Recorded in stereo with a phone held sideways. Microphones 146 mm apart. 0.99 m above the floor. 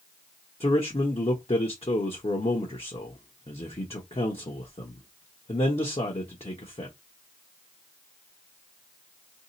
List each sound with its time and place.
0.6 s a man speaking: 40° left (ahead or behind), 0.8 m